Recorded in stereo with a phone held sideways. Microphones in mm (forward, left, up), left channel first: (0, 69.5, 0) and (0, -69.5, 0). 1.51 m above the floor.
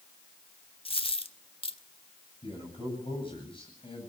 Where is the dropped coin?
40° left (ahead or behind), 1.1 m.